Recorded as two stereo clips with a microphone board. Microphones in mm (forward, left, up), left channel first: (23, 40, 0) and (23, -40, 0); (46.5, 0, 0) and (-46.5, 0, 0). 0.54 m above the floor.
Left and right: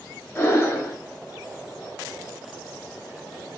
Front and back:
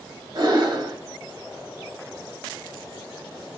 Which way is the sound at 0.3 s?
150° left.